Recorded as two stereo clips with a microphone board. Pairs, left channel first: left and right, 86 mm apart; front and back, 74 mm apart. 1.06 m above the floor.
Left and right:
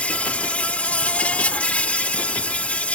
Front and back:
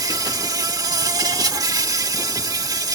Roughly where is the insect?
Behind.